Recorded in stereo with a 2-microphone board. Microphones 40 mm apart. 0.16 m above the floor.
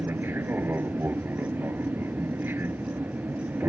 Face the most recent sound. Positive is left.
turn(degrees=-60)  # may be behind; listen again after turning